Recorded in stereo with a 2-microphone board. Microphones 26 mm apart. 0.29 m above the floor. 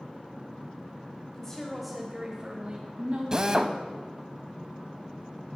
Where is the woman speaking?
20° left (ahead or behind), 1.5 m; by 3.6 s 55° right (ahead or behind), 2.5 m.